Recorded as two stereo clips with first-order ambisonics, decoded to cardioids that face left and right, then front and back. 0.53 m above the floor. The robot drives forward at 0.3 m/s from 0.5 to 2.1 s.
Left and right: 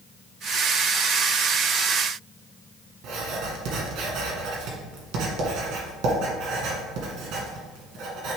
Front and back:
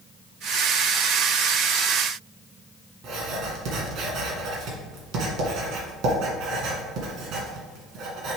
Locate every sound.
3.0 s writing: 130° right, 1.7 m